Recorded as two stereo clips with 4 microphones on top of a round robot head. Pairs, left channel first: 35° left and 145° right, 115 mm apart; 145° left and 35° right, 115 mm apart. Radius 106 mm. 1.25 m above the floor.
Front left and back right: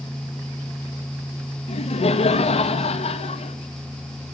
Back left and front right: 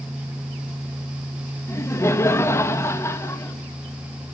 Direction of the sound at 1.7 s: 75° left.